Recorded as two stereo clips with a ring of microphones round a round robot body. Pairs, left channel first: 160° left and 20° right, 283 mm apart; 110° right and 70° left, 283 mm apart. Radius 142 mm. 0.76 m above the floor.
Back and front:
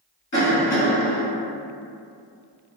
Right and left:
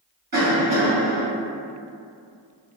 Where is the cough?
105° left, 1.3 m.